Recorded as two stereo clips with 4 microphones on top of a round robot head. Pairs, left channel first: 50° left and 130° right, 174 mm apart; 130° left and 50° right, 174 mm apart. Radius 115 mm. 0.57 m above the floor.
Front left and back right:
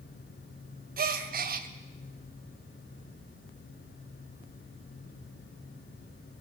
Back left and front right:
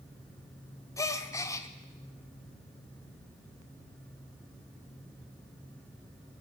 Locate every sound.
1.0 s a gasp: 160° right, 1.0 m